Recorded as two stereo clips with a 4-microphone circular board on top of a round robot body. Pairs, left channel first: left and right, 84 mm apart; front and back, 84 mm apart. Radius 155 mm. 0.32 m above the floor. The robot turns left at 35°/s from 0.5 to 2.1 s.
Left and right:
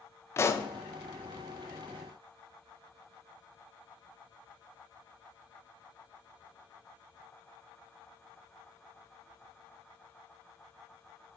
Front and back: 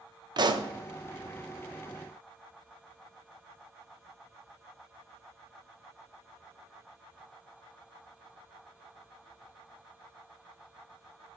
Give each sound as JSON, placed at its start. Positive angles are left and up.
{"t": 0.4, "sound": "a pop", "azimuth_deg": 150, "distance_m": 1.0}